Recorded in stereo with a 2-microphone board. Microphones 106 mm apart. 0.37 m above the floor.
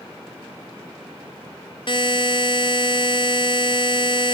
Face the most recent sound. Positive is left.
turn(degrees=50)  # may be behind; listen again after turning